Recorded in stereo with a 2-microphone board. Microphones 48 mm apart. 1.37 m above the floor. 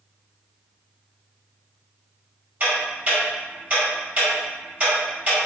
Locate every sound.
2.6 s ticking: 30° right (ahead or behind), 1.4 m